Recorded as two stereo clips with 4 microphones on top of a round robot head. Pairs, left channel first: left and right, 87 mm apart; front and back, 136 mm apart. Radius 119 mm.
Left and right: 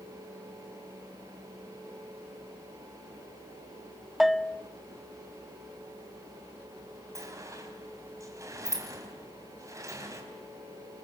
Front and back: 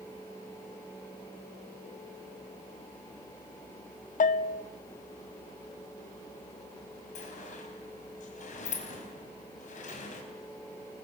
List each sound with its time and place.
4.2 s a bell: straight ahead, 0.6 m
7.2 s a sliding door: 35° right, 4.5 m